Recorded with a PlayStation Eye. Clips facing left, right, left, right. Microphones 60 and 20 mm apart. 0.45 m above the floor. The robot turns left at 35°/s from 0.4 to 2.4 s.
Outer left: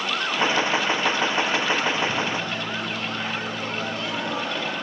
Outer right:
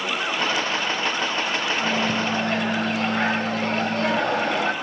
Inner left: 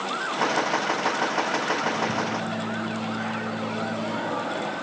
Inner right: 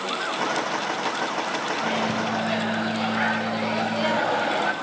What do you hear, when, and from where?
1.8 s a microwave: 70° right (ahead or behind), 1.6 m; by 4.7 s 50° right (ahead or behind), 1.6 m